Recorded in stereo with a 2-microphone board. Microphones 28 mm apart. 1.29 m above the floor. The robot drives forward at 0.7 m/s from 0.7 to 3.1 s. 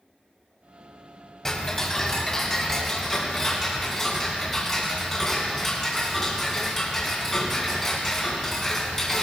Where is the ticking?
15° left (ahead or behind), 1.5 m; by 9.2 s 10° left (ahead or behind), 2.5 m.